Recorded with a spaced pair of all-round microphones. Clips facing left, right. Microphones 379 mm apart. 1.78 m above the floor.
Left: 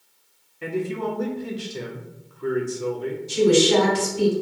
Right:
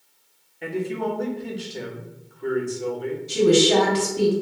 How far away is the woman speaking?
About 1.6 m.